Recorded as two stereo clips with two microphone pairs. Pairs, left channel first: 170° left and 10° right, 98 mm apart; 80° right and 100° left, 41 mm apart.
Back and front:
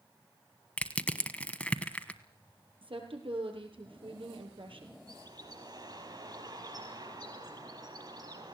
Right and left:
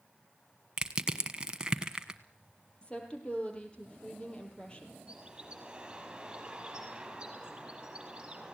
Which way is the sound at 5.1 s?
30° left.